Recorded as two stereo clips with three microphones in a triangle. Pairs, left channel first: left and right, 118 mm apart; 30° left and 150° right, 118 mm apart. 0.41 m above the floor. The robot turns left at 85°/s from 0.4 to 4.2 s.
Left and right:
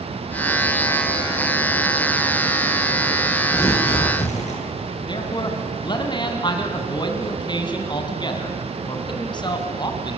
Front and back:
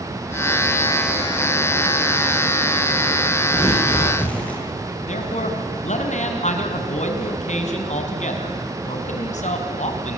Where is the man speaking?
40° left, 4 m.